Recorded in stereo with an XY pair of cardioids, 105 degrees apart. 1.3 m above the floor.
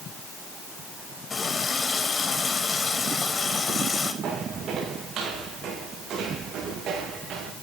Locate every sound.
1.3 s a running tap: 30° left, 4.5 m
4.2 s footsteps: 65° right, 6.5 m